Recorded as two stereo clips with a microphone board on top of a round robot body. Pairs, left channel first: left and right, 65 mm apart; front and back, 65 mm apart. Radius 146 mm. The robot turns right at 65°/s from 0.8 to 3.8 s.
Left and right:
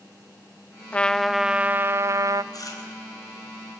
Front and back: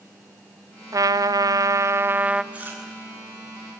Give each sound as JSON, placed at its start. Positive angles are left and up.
{"t": 0.9, "sound": "a trumpet", "azimuth_deg": 155, "distance_m": 0.7}
{"t": 2.5, "sound": "chewing", "azimuth_deg": 110, "distance_m": 4.0}